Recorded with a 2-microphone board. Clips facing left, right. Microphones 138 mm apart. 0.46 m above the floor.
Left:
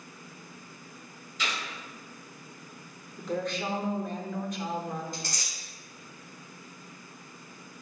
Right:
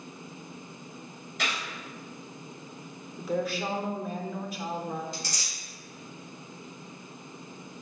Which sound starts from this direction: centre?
A woman speaking, at 3.2 s.